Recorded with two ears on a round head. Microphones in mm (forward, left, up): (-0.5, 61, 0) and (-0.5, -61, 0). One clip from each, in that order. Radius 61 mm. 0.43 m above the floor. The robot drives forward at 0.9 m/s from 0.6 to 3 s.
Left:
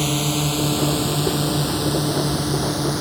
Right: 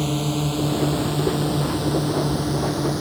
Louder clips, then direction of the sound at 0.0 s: Left 3 dB; 40° left (ahead or behind).